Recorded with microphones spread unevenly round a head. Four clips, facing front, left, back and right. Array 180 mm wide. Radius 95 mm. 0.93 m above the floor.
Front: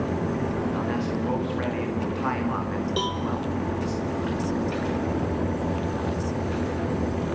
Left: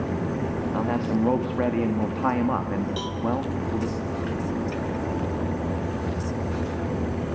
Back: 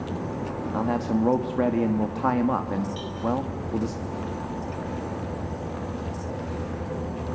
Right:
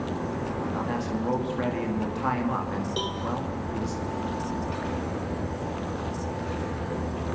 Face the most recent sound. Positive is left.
turn(degrees=-10)